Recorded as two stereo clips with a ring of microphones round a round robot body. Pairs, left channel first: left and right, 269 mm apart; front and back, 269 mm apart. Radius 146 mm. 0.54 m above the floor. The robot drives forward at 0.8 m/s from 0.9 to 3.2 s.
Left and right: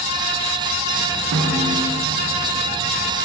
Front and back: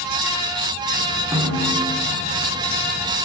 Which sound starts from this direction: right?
A snare drum, at 1.3 s.